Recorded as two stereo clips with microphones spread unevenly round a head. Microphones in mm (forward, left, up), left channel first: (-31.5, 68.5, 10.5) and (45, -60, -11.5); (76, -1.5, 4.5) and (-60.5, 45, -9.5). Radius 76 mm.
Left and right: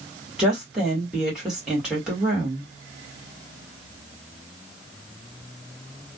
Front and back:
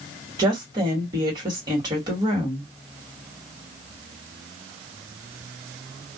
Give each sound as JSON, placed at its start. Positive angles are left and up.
{"t": 0.4, "sound": "a woman speaking", "azimuth_deg": -140, "distance_m": 1.5}